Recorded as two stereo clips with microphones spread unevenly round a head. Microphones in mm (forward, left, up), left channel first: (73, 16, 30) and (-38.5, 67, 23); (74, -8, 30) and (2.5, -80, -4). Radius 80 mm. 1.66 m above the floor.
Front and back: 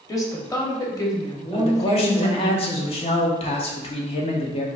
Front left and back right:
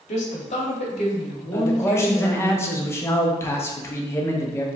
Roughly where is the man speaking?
Ahead.